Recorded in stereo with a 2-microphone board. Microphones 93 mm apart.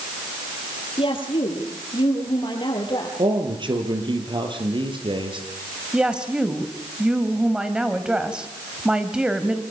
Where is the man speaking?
60° right (ahead or behind), 7 m.